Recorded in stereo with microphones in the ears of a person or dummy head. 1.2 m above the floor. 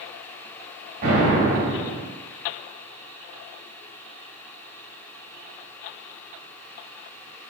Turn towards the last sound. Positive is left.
turn(degrees=-80)